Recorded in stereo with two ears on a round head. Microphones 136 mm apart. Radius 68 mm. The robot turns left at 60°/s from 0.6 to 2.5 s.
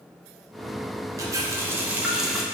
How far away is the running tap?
About 0.5 m.